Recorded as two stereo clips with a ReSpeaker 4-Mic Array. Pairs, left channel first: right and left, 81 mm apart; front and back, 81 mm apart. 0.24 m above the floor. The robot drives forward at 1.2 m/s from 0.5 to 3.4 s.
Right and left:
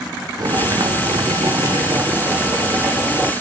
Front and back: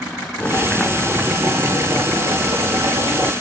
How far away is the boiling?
About 1.3 m.